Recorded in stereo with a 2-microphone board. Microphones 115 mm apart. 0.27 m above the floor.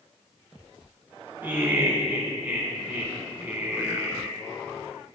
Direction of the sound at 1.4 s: 15° right (ahead or behind).